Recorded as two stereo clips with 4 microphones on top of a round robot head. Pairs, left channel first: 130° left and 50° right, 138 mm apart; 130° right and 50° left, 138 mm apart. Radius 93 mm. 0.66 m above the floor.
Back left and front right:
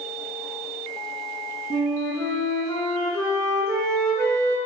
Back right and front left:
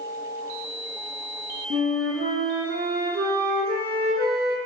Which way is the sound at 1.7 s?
60° left.